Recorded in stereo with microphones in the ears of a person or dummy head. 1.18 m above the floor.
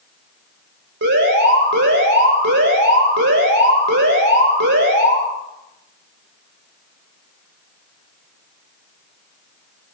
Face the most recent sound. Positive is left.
turn(degrees=-55)  # may be behind; listen again after turning